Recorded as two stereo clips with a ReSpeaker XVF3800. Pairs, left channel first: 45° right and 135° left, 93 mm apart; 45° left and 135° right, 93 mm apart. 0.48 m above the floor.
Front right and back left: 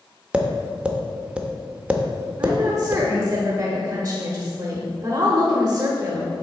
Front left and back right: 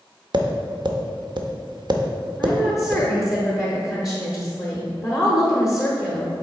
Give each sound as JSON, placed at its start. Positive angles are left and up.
{"t": 0.3, "sound": "tapping", "azimuth_deg": -150, "distance_m": 0.6}
{"t": 2.4, "sound": "a woman speaking", "azimuth_deg": 140, "distance_m": 1.0}